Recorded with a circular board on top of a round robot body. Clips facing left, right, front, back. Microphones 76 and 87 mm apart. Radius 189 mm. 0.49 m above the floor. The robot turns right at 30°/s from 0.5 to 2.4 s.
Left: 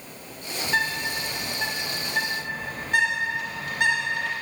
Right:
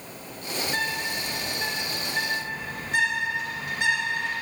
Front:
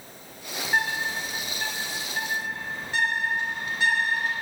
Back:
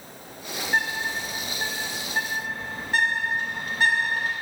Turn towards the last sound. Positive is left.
turn(degrees=130)